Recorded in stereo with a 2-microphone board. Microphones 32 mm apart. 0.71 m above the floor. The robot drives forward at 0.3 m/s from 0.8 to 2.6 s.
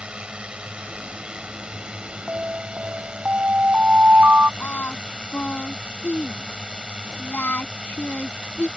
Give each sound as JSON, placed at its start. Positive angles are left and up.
{"t": 0.0, "sound": "a drone", "side_deg": -35}
{"t": 2.3, "sound": "an alarm", "side_deg": -60}
{"t": 4.6, "sound": "singing", "side_deg": 80}